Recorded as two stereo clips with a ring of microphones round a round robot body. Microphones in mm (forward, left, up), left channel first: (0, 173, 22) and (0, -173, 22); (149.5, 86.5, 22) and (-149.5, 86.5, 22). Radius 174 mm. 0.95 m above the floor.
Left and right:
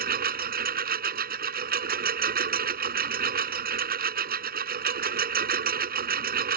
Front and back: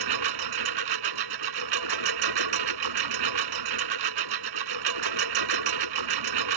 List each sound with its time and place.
0.0 s a lawn mower: 155° right